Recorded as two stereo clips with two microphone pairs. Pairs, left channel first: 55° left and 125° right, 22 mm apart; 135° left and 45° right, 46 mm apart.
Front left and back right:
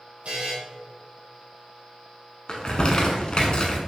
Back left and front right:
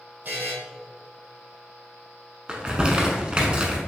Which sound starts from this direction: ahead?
Crumpling, at 2.5 s.